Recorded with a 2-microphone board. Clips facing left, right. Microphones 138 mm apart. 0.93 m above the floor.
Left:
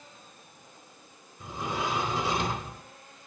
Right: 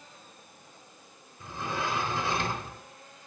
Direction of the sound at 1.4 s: 15° left (ahead or behind).